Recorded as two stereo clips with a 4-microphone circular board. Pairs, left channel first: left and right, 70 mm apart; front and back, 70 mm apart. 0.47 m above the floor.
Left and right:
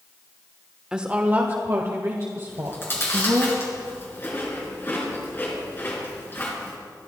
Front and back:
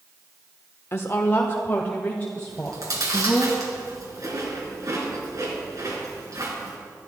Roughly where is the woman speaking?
Ahead.